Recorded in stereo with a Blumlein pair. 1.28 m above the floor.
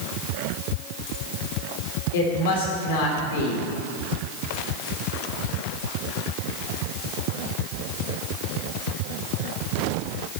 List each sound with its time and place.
2.1 s a woman speaking: 55° left, 4 m